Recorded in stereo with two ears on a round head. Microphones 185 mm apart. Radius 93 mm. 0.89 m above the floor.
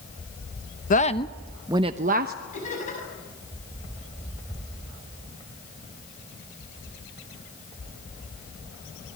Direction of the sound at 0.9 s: 40° left (ahead or behind).